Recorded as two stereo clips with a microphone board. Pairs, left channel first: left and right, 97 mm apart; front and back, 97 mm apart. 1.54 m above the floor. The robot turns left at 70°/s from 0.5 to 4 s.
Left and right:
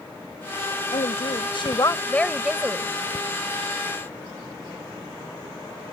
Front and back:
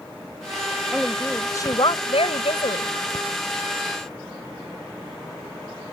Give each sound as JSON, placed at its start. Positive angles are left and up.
{"t": 0.9, "sound": "a woman speaking", "azimuth_deg": 105}